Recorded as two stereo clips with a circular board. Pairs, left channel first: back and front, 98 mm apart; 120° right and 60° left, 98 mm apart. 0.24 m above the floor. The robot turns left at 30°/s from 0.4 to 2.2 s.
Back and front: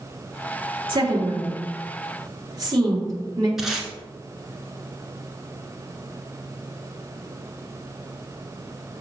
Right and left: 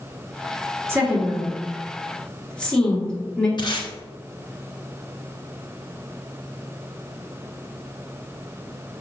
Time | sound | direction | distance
0.9 | a woman speaking | straight ahead | 3.5 m
3.6 | tape being pulled | 85° right | 1.5 m